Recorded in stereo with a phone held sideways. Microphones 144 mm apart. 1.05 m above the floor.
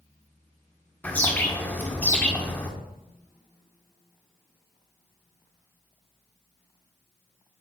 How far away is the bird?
About 1.0 m.